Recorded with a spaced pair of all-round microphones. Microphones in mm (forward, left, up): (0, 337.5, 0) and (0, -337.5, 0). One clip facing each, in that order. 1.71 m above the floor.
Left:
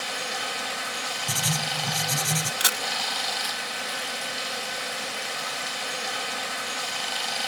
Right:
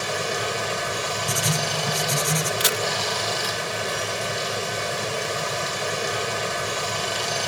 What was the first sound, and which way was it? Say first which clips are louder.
Running water: right 9 dB; 80° right.